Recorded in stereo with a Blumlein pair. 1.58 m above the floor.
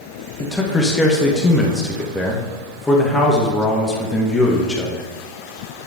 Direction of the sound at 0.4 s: 10° left.